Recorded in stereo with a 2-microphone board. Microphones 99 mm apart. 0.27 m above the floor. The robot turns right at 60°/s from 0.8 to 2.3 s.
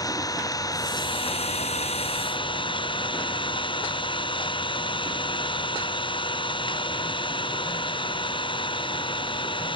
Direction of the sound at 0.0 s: 35° left.